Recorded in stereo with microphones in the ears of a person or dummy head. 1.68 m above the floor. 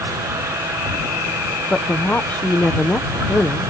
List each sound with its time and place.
1.7 s a woman speaking: 10° left (ahead or behind)